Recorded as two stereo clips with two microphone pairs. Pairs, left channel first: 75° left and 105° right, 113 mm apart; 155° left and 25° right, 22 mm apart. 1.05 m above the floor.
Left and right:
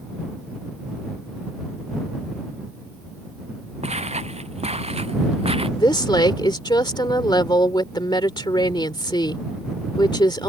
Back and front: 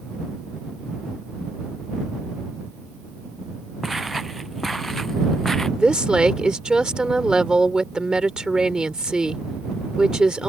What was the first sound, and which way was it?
Footsteps, 110° right.